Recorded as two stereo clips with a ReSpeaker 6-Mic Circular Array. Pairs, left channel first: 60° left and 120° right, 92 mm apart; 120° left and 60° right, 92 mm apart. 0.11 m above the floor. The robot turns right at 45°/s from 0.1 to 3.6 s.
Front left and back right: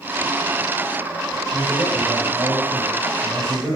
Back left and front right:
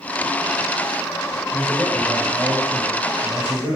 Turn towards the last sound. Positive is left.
turn(degrees=-65)